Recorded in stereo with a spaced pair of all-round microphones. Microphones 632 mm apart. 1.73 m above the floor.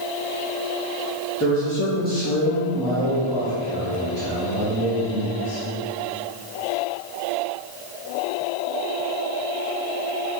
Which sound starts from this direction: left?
A man speaking, at 1.4 s.